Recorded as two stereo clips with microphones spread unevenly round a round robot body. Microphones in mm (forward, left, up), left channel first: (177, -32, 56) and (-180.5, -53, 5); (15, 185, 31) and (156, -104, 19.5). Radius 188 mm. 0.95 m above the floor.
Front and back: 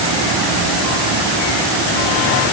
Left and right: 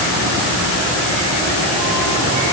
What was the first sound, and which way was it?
Only background noise.